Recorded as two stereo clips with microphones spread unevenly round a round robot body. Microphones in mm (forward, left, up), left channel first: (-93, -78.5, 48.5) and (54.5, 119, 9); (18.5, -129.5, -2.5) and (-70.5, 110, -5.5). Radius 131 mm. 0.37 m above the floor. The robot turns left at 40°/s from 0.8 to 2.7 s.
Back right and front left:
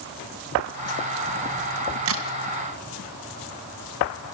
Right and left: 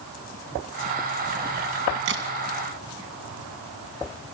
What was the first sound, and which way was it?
A crack, 70° left.